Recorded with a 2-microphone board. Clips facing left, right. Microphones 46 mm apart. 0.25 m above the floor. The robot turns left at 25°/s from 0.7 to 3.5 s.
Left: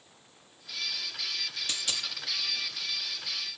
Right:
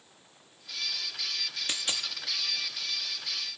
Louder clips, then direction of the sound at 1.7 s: Right 2 dB; 35° right (ahead or behind).